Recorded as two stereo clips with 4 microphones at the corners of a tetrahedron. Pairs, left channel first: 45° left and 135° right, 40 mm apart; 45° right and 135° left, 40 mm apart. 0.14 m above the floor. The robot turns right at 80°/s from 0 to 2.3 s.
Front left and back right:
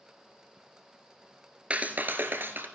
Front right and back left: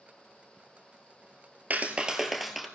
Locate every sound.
1.7 s a clap: 170° left, 1.7 m; by 2.7 s 140° right, 1.7 m